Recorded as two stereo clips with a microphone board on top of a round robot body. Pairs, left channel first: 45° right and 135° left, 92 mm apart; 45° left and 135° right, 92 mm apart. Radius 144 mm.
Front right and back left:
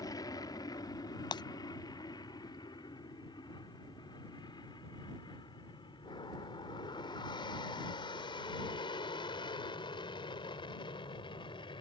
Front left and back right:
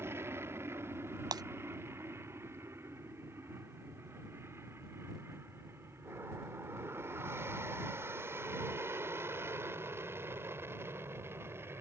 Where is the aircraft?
80° right; by 11.8 s 70° right.